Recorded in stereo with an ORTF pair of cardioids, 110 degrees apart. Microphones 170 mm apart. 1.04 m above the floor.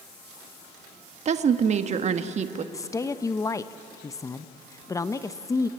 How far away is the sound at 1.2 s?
About 1.2 m.